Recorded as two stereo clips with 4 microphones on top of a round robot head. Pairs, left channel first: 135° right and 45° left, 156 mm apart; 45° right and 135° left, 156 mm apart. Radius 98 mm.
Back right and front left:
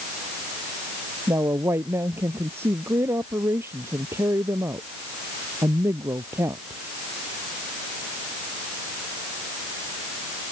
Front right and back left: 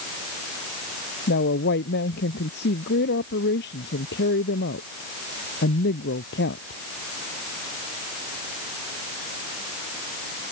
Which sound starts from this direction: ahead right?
A woman speaking, at 1.3 s.